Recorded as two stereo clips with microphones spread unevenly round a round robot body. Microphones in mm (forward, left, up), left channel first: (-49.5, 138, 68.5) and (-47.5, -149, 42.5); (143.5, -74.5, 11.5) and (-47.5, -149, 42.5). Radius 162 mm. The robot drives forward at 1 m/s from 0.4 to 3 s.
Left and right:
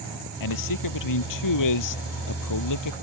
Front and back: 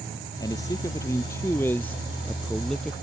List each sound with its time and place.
0.4 s a man speaking: 100° left; by 2.9 s 110° left